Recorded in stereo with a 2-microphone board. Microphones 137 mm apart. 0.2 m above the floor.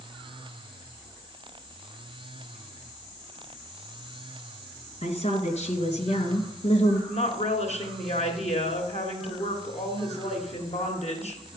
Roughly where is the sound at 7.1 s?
Left.